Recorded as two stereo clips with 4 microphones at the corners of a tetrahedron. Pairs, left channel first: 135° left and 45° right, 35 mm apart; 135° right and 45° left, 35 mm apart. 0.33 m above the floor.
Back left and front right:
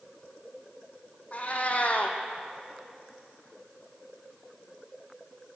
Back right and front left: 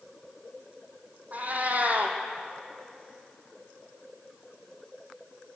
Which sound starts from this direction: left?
A cat meowing, at 1.3 s.